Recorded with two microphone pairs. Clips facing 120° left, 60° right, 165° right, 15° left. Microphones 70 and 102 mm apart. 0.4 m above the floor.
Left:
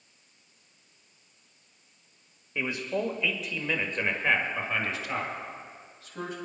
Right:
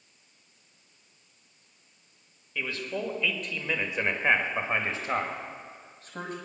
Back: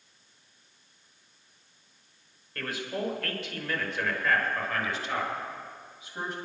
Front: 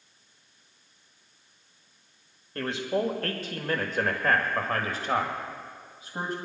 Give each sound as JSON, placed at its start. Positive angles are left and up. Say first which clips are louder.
{"t": 2.5, "sound": "a man speaking", "louder": "left 3 dB, front 6 dB", "azimuth_deg": 65, "distance_m": 1.8}